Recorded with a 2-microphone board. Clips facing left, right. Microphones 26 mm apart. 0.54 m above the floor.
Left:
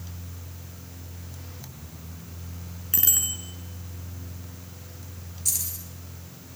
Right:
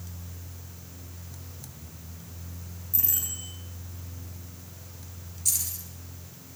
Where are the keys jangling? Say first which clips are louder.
Even; 5° left (ahead or behind), 6 m.